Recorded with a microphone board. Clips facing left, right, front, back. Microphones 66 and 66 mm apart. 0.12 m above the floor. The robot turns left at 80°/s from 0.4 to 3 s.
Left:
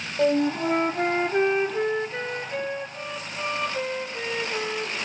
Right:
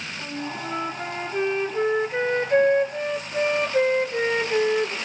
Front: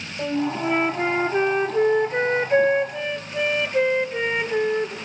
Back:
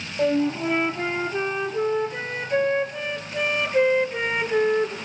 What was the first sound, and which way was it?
A flute, 115° left.